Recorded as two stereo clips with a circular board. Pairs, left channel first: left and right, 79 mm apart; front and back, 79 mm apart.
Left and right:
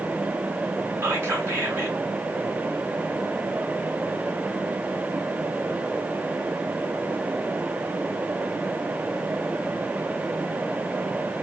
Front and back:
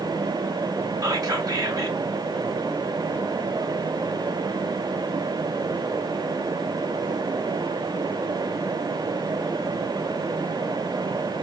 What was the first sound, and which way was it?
Whispering, 145° right.